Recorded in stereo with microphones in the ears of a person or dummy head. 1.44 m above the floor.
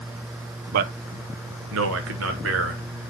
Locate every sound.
0.7 s a man speaking: 55° right (ahead or behind), 0.7 m; by 2.8 s 70° right (ahead or behind), 1.6 m